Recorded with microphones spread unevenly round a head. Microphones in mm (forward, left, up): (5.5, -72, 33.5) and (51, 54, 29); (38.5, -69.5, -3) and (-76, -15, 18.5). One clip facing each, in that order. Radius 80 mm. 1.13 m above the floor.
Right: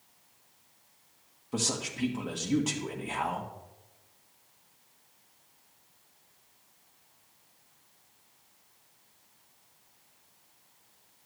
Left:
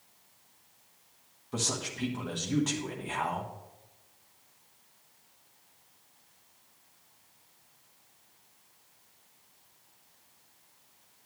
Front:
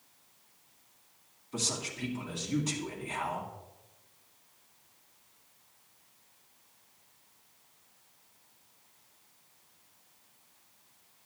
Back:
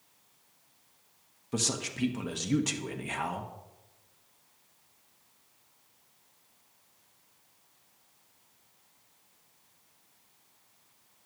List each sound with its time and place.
1.5 s a man speaking: 165° left, 1.3 m